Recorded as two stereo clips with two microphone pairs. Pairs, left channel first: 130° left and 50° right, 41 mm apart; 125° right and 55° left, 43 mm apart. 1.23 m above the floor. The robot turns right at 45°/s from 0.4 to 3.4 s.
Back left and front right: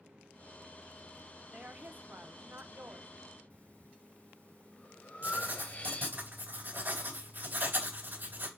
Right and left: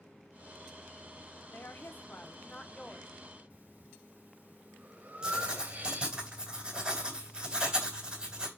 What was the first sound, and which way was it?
A woman speaking, 110° right.